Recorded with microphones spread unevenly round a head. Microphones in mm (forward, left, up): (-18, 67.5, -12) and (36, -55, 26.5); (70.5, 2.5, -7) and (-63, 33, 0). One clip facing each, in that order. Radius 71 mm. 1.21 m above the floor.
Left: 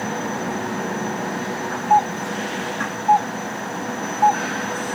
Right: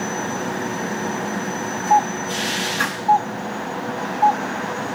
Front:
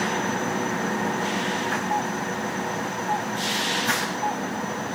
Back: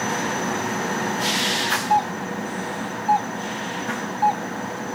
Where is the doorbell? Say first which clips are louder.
Even, back 5 dB; straight behind.